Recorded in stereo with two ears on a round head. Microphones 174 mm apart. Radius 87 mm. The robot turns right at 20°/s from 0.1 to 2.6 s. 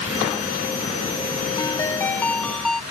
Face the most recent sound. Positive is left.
turn(degrees=0)  # may be behind; listen again after turning